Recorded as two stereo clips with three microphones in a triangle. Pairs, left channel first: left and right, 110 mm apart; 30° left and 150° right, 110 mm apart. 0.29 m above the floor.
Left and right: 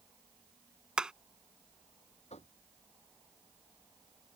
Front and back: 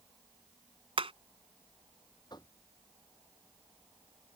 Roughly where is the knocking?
Left.